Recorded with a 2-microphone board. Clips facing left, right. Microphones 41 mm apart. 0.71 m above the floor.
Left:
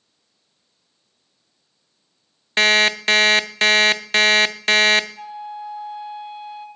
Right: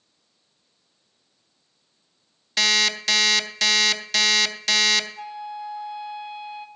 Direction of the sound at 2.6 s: 40° left (ahead or behind).